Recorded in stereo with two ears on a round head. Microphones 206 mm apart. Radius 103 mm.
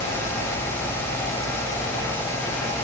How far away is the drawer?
I don't hear a drawer.